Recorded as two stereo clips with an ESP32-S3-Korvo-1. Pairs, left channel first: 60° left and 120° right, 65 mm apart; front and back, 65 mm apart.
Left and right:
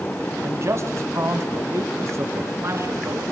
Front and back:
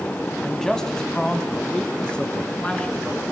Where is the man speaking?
85° right, 2.5 m; by 3.2 s 75° right, 4.5 m.